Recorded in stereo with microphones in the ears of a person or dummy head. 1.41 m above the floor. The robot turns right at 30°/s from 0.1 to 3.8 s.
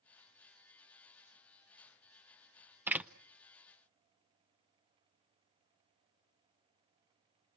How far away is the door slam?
About 0.6 m.